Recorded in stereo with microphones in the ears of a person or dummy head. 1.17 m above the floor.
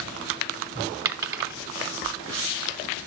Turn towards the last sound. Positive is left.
turn(degrees=-25)  # may be behind; listen again after turning